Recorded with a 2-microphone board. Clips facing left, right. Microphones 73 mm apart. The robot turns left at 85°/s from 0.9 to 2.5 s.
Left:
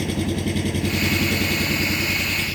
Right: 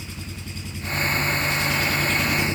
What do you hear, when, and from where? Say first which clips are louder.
0.0 s an engine running: left 14 dB; 110° left; by 2.5 s 25° right